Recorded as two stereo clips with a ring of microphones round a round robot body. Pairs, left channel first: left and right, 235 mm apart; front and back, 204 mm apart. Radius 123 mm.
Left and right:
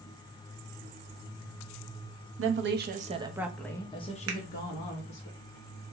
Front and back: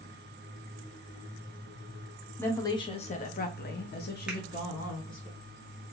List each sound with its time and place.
2.4 s a woman speaking: 80° right, 0.9 m; by 5.3 s 45° left, 1.6 m
4.3 s a finger snap: 95° right, 0.9 m